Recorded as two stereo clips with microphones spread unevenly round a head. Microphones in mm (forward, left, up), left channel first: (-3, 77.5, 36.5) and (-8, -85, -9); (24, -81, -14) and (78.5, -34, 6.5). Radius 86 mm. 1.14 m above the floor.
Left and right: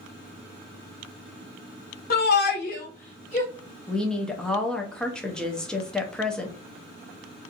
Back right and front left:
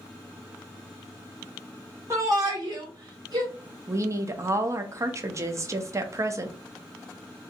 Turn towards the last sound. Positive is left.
turn(degrees=-10)